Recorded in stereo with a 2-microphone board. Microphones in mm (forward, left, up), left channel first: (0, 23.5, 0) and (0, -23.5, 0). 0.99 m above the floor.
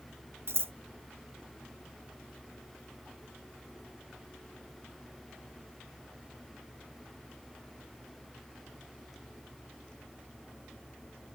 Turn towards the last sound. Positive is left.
turn(degrees=-55)  # may be behind; listen again after turning